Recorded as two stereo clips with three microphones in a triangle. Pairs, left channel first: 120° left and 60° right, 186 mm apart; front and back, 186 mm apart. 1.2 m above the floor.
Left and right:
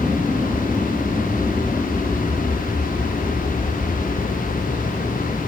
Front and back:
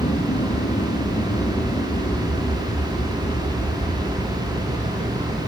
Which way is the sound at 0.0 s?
25° left.